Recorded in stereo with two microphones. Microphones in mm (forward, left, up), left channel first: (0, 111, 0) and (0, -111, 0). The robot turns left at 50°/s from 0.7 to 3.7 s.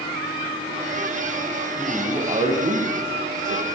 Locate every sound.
1.8 s a man speaking: 5° left, 1.1 m; by 3.7 s 90° right, 1.1 m